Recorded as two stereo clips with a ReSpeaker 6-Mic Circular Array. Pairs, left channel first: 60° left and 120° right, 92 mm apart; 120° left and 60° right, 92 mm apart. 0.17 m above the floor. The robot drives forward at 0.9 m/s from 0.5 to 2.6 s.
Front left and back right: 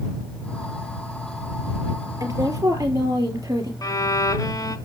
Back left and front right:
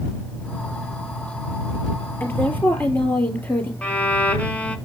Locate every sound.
2.2 s a woman speaking: 170° right, 3.5 m
3.8 s a violin: 50° left, 1.0 m